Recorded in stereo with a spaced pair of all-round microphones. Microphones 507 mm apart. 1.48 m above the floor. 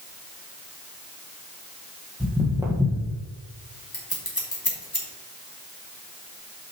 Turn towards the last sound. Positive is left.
turn(degrees=45)  # may be behind; listen again after turning